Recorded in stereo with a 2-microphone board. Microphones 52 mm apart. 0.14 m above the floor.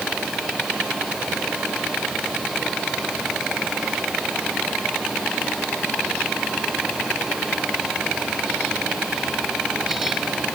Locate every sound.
Only background noise.